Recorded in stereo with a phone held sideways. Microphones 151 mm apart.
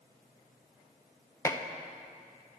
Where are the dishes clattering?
20° left (ahead or behind), 0.6 m.